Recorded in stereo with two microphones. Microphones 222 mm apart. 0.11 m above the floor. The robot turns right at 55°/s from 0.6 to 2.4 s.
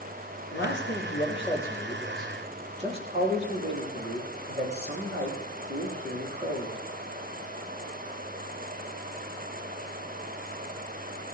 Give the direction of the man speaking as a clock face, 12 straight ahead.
8 o'clock.